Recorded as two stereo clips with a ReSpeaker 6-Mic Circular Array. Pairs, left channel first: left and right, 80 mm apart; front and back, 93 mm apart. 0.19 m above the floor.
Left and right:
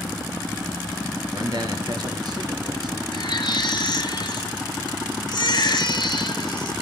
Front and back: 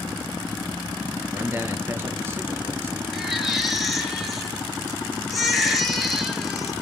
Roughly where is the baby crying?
Left.